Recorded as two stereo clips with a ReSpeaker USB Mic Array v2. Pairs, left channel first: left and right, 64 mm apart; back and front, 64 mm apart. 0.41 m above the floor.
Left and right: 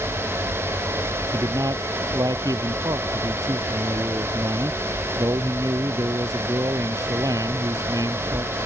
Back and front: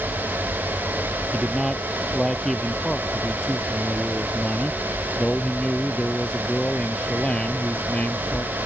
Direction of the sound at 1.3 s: 90° right.